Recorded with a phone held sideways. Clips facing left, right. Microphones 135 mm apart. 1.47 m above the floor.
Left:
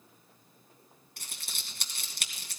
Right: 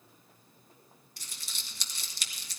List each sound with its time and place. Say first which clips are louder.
1.2 s crumpling: left 3 dB; 55° left (ahead or behind), 2.5 m